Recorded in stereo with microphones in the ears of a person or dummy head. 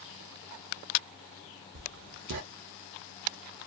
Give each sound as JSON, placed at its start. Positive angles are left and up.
{"t": 1.8, "sound": "writing", "side_deg": -60, "distance_m": 0.5}